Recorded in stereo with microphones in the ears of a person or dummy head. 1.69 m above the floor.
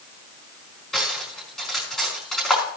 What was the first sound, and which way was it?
Cutlery clinking, centre (ahead or behind).